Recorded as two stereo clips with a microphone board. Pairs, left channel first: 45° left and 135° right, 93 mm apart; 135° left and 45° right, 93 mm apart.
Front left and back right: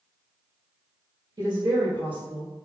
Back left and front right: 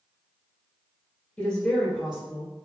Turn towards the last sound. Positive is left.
turn(degrees=-70)